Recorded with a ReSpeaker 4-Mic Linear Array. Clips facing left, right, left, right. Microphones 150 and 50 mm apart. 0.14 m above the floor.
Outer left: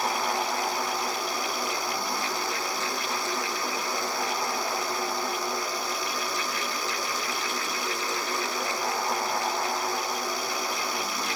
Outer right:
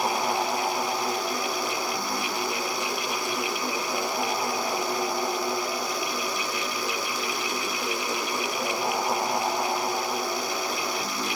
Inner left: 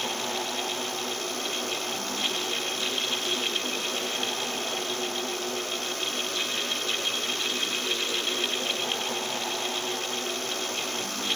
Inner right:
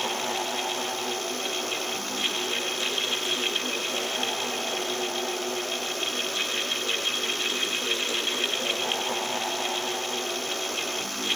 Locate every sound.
Only background noise.